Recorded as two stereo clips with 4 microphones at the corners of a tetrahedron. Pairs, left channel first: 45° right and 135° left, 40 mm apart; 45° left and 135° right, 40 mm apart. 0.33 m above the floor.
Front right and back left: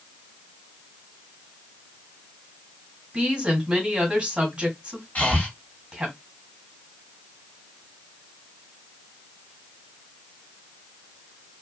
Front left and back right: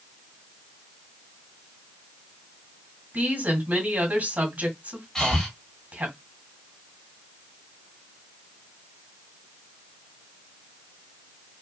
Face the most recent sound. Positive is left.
turn(degrees=-30)